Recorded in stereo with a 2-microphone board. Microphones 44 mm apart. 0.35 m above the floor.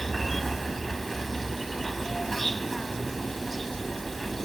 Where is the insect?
5° left (ahead or behind).